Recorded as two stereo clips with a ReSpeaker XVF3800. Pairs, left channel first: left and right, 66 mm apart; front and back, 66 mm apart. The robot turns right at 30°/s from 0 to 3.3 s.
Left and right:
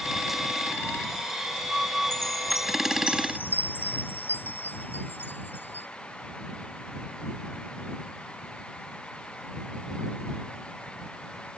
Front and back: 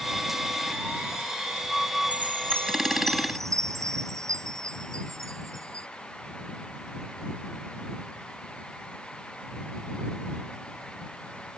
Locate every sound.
2.1 s a chime: 115° left; by 5.9 s 150° left